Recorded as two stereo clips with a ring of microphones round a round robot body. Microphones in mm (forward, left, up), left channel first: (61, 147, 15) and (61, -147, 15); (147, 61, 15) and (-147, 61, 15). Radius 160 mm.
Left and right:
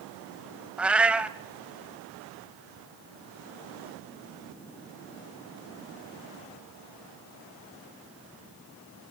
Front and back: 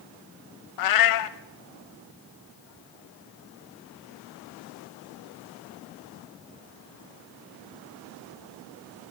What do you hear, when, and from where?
0.8 s a cat meowing: 5° right, 1.1 m